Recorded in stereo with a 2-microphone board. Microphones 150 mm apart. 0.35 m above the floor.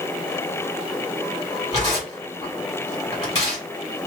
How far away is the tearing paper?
About 1.8 m.